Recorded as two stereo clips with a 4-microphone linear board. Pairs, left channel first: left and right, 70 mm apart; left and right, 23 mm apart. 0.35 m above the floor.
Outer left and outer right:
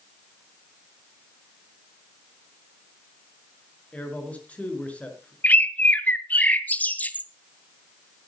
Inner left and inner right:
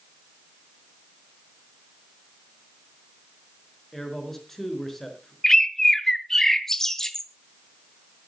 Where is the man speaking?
15° left (ahead or behind), 5 m.